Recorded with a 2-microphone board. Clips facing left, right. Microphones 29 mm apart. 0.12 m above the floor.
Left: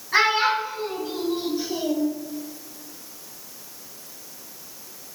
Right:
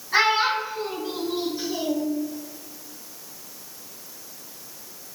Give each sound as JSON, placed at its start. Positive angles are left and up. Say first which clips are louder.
{"t": 0.1, "sound": "a child speaking", "louder": "left 1 dB", "side_deg": 10, "distance_m": 0.8}